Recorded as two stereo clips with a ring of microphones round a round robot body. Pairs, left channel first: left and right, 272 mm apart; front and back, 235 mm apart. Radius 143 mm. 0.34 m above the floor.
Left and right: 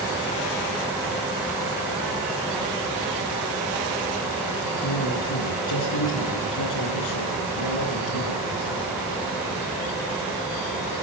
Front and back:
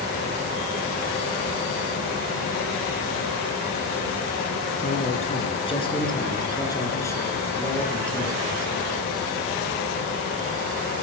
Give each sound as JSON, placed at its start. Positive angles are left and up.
{"t": 4.8, "sound": "a man speaking", "azimuth_deg": 60, "distance_m": 4.5}